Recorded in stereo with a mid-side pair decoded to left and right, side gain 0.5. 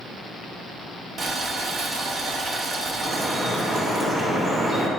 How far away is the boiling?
About 1.4 m.